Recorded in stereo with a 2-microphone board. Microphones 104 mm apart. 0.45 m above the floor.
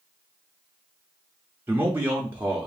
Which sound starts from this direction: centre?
A man speaking, at 1.7 s.